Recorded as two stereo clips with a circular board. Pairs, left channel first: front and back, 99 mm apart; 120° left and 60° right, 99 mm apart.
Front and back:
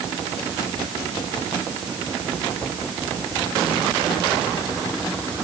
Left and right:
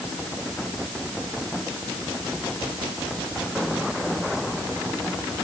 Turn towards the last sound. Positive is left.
No sound to turn to.